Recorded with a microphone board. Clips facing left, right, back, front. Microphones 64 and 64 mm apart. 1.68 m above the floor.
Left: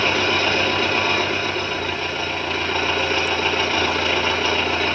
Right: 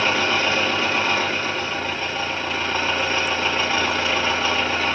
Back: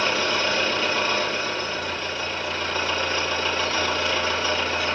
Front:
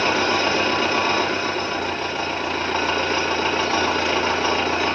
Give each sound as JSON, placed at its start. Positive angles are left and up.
{"t": 0.0, "sound": "an engine running", "azimuth_deg": -5, "distance_m": 2.5}